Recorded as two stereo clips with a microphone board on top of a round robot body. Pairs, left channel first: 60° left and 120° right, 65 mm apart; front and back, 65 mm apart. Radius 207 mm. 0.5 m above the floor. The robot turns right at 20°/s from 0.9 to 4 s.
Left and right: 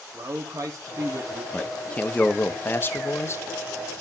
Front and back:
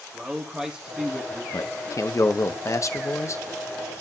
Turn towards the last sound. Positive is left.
turn(degrees=40)